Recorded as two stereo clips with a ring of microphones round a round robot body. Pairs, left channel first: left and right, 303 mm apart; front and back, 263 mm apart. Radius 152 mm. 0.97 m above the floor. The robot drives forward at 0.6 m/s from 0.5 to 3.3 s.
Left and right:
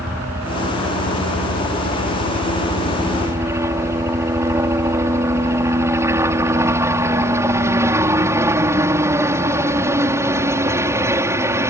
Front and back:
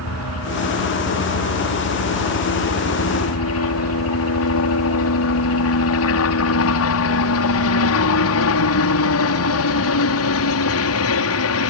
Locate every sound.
0.0 s a helicopter: 10° right